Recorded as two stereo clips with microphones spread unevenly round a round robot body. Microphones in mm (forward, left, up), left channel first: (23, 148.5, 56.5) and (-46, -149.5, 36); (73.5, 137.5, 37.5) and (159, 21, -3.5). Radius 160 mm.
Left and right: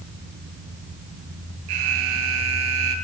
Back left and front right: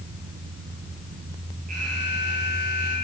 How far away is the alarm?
About 8.5 m.